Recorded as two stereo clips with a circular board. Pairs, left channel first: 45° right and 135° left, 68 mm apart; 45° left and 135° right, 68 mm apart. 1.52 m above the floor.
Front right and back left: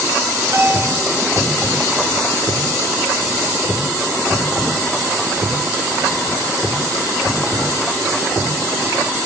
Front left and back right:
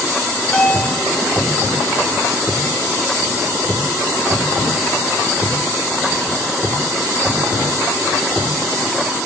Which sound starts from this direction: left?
A bell, at 0.5 s.